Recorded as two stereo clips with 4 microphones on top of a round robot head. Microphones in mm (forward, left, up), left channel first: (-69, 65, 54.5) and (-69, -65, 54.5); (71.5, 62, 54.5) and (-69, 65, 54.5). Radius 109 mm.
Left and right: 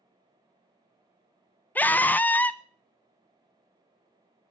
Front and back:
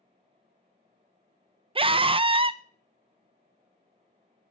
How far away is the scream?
About 0.8 m.